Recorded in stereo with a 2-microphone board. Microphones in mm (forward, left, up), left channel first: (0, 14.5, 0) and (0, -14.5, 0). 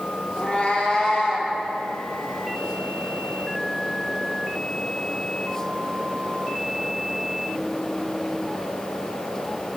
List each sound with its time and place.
0.4 s a cat meowing: 40° left (ahead or behind), 1.3 m